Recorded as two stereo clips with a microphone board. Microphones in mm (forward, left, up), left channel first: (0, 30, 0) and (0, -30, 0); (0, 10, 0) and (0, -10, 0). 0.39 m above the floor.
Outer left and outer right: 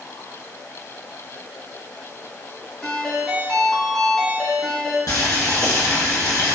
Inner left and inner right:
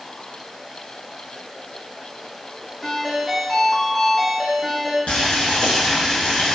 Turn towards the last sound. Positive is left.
turn(degrees=75)  # may be behind; listen again after turning